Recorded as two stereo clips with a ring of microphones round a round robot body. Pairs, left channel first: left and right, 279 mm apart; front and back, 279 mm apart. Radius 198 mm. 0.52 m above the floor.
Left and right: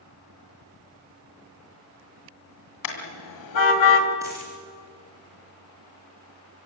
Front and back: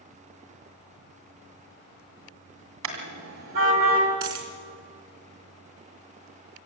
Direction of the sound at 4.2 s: 170° right.